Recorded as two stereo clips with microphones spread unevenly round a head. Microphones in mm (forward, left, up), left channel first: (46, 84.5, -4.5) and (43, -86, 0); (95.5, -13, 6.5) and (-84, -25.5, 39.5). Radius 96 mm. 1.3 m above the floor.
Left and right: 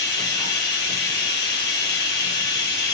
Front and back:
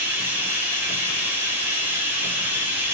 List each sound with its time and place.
0.0 s running water: 110° left, 1.0 m